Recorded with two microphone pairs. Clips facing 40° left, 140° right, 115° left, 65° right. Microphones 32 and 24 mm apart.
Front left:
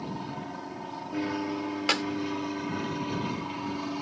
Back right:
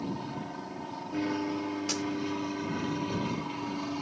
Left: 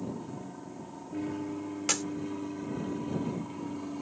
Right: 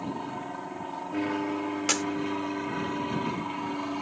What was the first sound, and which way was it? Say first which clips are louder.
An aircraft: even, right 5 dB; 40° right.